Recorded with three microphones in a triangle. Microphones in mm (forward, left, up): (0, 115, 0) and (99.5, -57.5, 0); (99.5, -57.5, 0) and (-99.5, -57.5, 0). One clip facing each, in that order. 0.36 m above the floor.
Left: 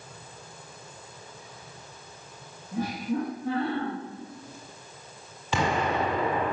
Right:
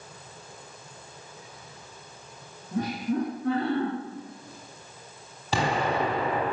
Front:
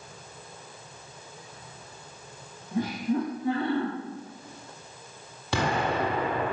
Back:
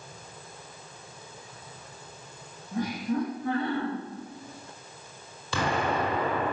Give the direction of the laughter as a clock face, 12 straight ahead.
2 o'clock.